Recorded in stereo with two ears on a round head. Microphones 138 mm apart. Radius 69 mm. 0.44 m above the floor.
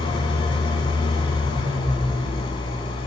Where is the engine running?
35° left (ahead or behind), 0.8 m.